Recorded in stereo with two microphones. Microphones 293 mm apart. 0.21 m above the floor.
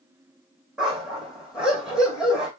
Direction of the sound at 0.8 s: Centre (ahead or behind).